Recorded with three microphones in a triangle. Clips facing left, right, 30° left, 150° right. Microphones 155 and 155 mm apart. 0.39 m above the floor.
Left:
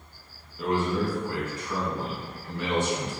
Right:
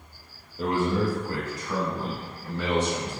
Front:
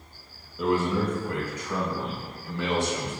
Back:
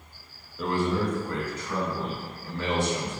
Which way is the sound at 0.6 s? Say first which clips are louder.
Right 1 dB, front 2 dB; 55° right.